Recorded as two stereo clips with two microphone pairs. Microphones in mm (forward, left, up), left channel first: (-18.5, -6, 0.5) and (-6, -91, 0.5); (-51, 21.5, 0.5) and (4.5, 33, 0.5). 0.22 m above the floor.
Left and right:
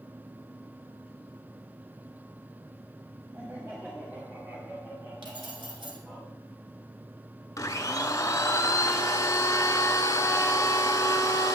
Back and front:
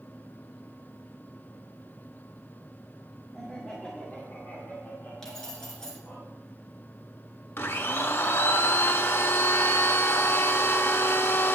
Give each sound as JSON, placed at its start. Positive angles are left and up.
{"t": 3.3, "sound": "laughter", "azimuth_deg": -100, "distance_m": 1.7}
{"t": 5.2, "sound": "keys jangling", "azimuth_deg": -85, "distance_m": 1.8}
{"t": 7.6, "sound": "a blender", "azimuth_deg": 150, "distance_m": 0.6}